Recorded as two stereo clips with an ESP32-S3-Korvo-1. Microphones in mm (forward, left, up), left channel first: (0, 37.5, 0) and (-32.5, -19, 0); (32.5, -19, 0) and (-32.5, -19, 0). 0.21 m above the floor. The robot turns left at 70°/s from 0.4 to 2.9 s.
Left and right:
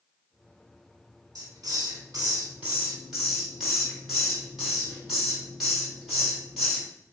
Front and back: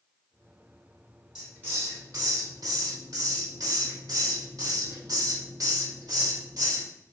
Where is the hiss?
100° right, 3.5 m; by 6.9 s 155° left, 3.5 m.